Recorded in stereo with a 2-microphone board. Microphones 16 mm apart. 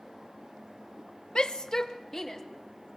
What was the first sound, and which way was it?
A shout, 60° left (ahead or behind).